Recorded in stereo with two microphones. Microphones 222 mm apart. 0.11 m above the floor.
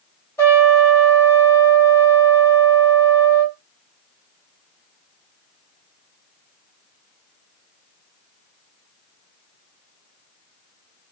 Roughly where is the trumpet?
Centre.